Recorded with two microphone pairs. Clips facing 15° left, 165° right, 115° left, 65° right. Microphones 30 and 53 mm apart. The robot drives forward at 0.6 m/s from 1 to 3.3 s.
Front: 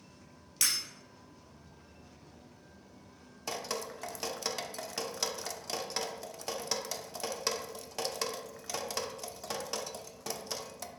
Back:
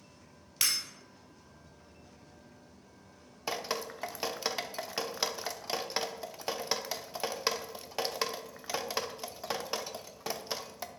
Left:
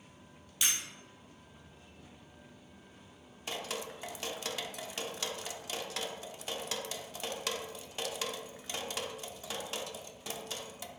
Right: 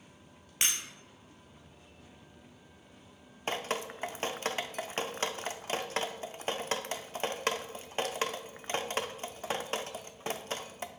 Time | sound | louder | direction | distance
0.6 | breaking glass | back 1 dB, right 1 dB | 90° right | 2.5 m
3.5 | dripping | back 2 dB, right 5 dB | 100° right | 0.5 m